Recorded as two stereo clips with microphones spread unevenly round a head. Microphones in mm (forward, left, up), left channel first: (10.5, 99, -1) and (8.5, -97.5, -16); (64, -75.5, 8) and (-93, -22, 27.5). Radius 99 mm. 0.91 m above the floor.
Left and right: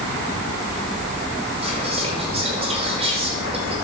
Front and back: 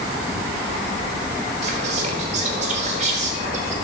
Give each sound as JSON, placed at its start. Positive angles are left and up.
{"t": 1.6, "sound": "whispering", "azimuth_deg": -150, "distance_m": 3.5}